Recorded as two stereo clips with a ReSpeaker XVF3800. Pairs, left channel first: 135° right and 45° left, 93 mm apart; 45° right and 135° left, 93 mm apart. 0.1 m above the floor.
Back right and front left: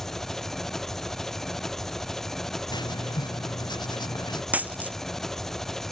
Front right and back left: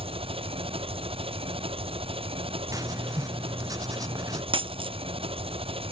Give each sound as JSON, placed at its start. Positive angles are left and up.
{"t": 0.0, "sound": "an engine running", "azimuth_deg": 140}
{"t": 2.7, "sound": "writing", "azimuth_deg": -175}
{"t": 4.5, "sound": "a dropped coin", "azimuth_deg": 120}